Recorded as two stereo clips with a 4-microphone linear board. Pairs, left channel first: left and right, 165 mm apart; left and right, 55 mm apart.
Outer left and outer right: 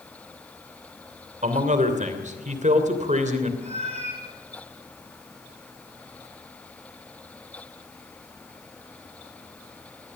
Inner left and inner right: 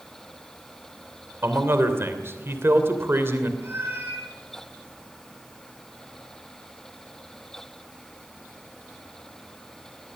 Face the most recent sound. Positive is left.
turn(degrees=-40)  # may be behind; listen again after turning